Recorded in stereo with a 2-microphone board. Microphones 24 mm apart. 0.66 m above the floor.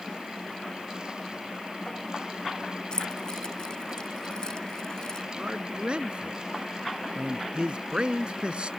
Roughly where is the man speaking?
Right.